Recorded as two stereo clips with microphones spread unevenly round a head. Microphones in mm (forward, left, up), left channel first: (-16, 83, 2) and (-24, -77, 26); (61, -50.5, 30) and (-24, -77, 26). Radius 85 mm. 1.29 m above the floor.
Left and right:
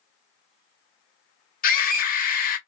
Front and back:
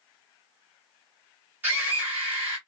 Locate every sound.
1.6 s a scream: 120° left, 1.3 m